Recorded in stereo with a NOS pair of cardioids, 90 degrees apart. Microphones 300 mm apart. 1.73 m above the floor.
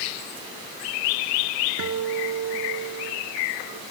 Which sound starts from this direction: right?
A guitar, at 1.8 s.